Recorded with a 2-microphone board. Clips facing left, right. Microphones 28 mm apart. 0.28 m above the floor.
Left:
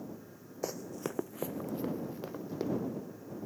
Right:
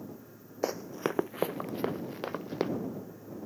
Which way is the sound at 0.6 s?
25° right (ahead or behind).